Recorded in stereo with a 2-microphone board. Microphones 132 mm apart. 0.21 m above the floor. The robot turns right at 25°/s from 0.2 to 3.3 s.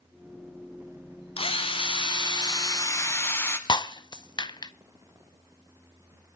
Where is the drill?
110° left, 1.4 m; by 3.6 s 155° left, 1.4 m.